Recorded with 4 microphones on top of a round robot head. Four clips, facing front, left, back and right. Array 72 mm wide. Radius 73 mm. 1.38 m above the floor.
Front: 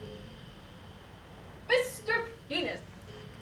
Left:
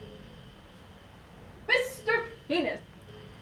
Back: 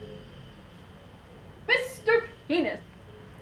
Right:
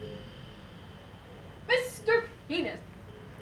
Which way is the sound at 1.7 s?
165° left.